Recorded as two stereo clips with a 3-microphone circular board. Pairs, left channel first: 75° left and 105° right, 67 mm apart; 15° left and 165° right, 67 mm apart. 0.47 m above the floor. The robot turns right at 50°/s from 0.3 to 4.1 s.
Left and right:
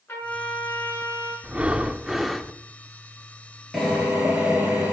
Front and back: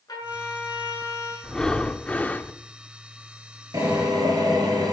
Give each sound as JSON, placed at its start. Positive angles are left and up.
{"t": 0.1, "sound": "a trumpet", "azimuth_deg": 15, "distance_m": 7.0}
{"t": 1.4, "sound": "breathing", "azimuth_deg": -60, "distance_m": 0.6}
{"t": 3.7, "sound": "a drill", "azimuth_deg": 170, "distance_m": 5.0}